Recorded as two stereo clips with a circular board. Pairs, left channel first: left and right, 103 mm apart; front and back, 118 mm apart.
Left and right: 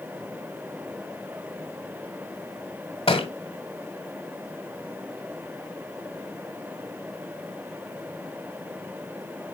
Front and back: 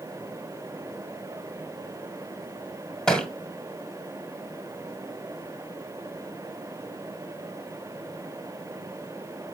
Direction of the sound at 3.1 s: 85° left.